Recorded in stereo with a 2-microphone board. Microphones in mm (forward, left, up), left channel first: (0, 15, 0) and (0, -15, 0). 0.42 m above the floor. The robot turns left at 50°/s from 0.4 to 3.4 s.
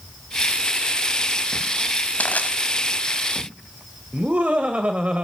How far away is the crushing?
About 1.5 m.